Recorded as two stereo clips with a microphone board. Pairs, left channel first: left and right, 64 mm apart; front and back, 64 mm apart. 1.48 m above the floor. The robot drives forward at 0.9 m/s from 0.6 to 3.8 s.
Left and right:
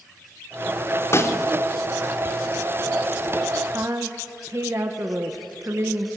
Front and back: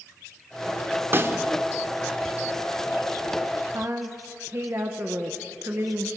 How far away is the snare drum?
About 1.9 m.